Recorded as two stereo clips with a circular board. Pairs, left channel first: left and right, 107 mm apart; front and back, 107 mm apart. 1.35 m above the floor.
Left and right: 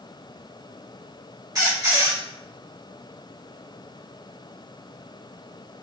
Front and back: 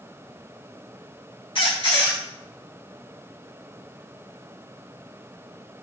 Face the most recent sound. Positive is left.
turn(degrees=-30)